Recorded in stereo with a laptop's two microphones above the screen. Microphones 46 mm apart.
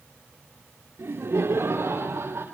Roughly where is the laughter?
Right.